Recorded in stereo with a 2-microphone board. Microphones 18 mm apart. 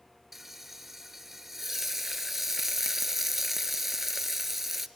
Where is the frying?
20° right (ahead or behind), 0.5 m.